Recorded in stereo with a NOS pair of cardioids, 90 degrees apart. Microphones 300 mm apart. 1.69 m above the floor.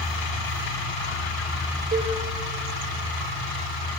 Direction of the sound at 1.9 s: 25° right.